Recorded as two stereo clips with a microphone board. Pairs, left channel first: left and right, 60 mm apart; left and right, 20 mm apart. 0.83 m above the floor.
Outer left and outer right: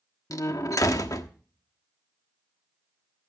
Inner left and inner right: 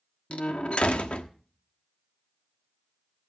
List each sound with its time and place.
0.3 s a door slam: 65° left (ahead or behind), 1.2 m